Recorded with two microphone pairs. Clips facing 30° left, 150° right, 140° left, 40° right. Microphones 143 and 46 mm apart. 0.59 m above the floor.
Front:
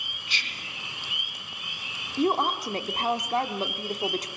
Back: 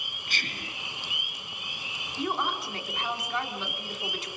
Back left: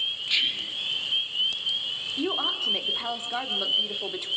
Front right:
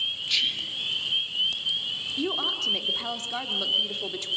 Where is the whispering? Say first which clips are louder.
Back 3 dB, back left 1 dB; 155° right, 1.2 m.